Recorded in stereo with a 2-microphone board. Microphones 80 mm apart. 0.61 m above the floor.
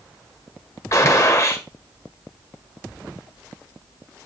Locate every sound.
0.9 s a gunshot: 40° left (ahead or behind), 1.5 m